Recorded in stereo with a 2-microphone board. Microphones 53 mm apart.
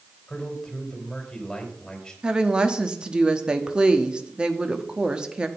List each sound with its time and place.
0.3 s a man speaking: 10° left (ahead or behind), 3 m
2.2 s a woman speaking: 15° right (ahead or behind), 1.1 m